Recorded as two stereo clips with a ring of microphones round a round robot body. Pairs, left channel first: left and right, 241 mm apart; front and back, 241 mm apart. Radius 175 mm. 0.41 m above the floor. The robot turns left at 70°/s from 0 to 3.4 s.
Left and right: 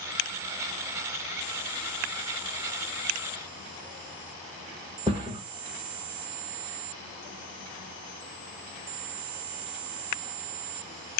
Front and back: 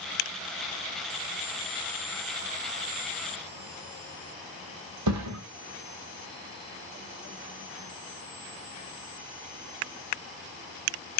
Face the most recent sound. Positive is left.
turn(degrees=-170)